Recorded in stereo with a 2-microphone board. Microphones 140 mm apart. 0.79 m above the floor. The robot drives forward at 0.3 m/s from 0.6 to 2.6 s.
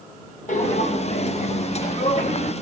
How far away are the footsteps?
About 1.5 m.